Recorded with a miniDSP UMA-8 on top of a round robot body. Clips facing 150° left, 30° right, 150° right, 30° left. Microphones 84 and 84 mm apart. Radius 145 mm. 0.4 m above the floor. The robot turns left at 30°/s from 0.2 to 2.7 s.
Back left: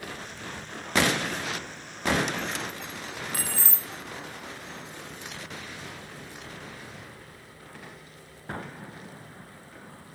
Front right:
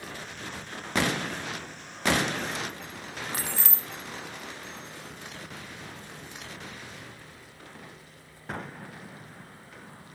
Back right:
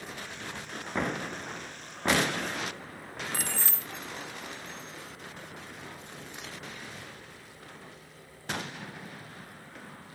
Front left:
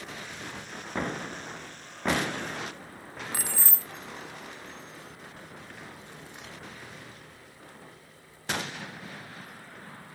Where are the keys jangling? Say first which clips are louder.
Even, back right 1 dB; 40° right, 0.5 m.